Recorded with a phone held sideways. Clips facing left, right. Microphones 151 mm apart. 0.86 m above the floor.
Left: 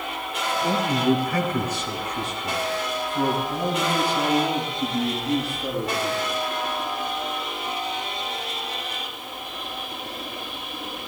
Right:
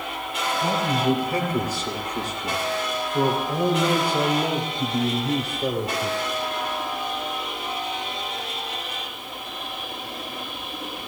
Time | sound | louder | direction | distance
0.6 | a man speaking | left 1 dB | 25° right (ahead or behind) | 3.5 m